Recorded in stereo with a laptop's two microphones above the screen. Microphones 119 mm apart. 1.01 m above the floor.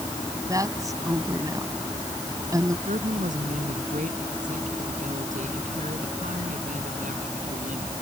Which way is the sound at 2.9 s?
85° right.